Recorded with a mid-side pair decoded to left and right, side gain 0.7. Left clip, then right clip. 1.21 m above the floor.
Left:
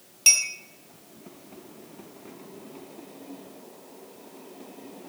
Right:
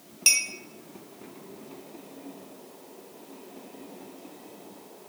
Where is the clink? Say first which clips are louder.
Left 3 dB; 5° right, 0.6 m.